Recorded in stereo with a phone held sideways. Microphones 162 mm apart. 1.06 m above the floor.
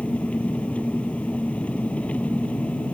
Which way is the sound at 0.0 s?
5° left (ahead or behind).